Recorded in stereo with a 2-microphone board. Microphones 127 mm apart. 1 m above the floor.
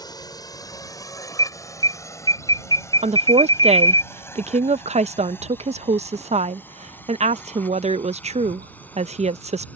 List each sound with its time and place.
0.0 s a drone: 30° left (ahead or behind); by 9.8 s 10° left (ahead or behind)
1.4 s an alarm: 35° left (ahead or behind)
3.0 s a woman speaking: 60° right (ahead or behind)